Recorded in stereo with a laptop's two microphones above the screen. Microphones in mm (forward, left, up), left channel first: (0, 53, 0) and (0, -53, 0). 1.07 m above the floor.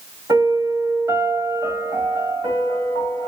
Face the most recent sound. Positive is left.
turn(degrees=-25)  # may be behind; listen again after turning